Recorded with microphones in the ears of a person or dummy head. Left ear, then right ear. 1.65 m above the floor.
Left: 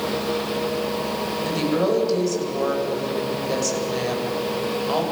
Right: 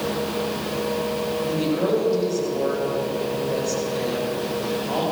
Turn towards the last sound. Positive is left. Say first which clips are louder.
# left 2 dB
turn(degrees=85)